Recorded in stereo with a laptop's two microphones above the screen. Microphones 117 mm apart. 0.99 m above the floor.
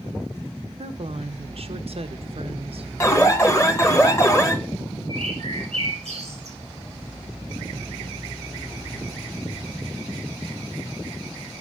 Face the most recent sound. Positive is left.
turn(degrees=-65)  # may be behind; listen again after turning